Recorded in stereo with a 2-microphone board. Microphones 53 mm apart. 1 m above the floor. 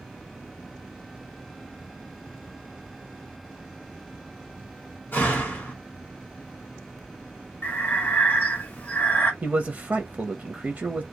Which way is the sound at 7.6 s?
35° left (ahead or behind).